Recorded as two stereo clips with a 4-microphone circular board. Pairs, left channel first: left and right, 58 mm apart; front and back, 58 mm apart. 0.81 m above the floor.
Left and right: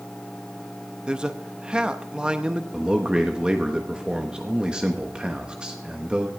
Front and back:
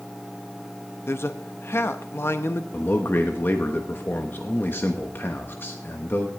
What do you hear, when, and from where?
1.1 s a man speaking: 20° right, 0.6 m
2.7 s a man speaking: 25° right, 1.1 m